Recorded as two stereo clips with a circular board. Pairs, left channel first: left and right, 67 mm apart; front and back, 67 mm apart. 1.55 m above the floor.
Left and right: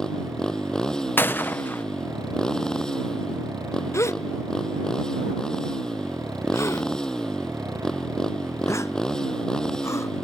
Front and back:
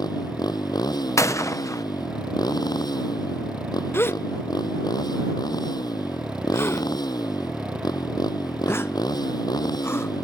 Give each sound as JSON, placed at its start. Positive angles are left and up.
{"t": 0.0, "sound": "a motorcycle", "azimuth_deg": 10}
{"t": 1.2, "sound": "a gunshot", "azimuth_deg": 35}
{"t": 3.9, "sound": "a gasp", "azimuth_deg": 50}